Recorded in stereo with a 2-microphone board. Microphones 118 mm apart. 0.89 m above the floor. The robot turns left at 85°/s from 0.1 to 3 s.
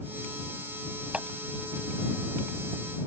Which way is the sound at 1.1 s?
10° right (ahead or behind).